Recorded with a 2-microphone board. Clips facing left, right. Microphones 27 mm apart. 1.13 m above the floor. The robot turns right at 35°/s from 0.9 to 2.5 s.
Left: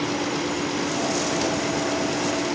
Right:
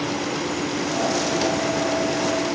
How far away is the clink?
I don't hear a clink.